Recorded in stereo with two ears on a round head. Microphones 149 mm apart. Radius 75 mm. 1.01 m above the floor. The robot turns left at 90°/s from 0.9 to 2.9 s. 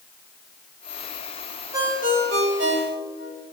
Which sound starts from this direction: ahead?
A ringtone, at 1.7 s.